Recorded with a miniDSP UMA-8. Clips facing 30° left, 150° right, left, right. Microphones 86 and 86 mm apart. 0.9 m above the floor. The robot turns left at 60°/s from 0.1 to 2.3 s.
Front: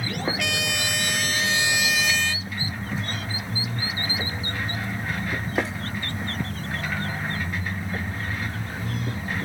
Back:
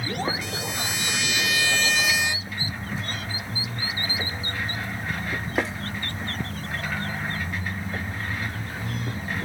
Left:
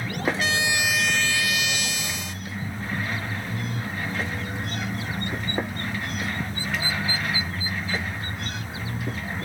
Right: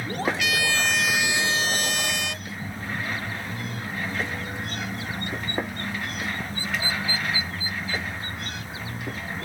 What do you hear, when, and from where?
0.4 s a trumpet: 40° left; by 2.5 s 75° right